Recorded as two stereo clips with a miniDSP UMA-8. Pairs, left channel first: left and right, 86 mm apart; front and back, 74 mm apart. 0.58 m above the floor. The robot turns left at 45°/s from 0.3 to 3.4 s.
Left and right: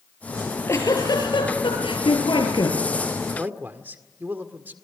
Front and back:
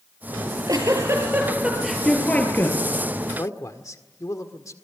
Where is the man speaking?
25° right, 1.7 m; by 4.7 s 30° right, 1.7 m.